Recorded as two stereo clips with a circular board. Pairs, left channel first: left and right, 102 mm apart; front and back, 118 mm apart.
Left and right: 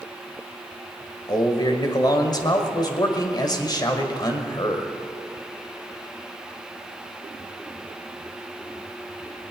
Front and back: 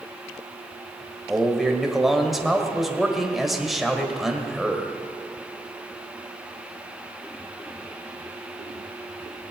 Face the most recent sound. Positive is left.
turn(degrees=90)